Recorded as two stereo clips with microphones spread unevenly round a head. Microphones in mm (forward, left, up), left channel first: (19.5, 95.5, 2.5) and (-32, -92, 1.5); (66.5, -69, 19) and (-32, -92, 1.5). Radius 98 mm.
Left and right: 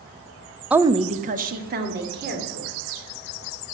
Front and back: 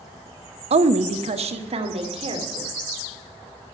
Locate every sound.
0.7 s a woman speaking: 170° left, 0.6 m; by 2.8 s 145° right, 3 m